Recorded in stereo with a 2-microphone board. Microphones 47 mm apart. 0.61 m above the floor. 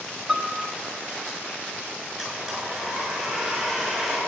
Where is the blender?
20° right (ahead or behind), 6 m.